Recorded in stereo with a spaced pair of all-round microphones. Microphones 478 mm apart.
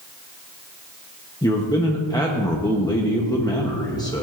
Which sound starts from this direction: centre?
A man speaking, at 1.4 s.